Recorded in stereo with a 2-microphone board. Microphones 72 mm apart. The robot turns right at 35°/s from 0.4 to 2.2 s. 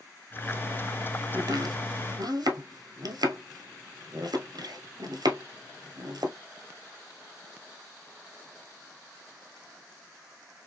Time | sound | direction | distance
1.3 | chopping | 65° right (ahead or behind) | 1.1 m